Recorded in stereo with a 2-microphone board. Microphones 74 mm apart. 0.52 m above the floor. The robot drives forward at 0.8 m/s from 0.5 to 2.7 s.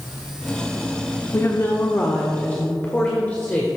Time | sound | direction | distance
1.3 | a woman speaking | 40° left (ahead or behind) | 0.9 m